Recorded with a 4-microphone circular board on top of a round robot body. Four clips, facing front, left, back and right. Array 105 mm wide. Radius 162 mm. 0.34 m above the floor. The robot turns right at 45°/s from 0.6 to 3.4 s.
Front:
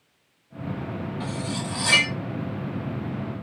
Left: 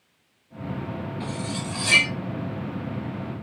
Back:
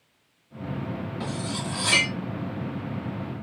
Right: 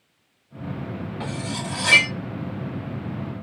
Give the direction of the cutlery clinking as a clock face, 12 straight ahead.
4 o'clock.